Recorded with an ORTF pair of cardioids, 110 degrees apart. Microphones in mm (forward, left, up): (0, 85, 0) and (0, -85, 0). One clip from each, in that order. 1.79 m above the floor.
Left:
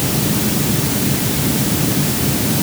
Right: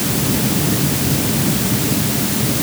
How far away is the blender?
No blender in this recording.